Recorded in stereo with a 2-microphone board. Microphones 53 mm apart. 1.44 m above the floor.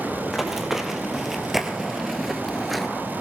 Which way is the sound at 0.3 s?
10° right (ahead or behind).